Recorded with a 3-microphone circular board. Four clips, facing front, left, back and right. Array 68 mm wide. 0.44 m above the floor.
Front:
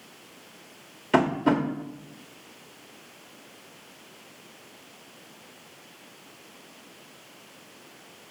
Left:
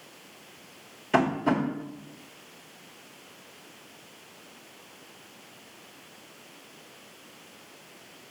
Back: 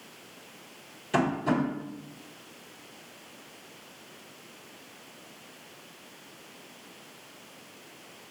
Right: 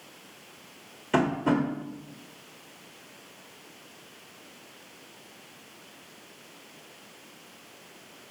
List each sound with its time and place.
1.1 s tapping: 10° right, 1.5 m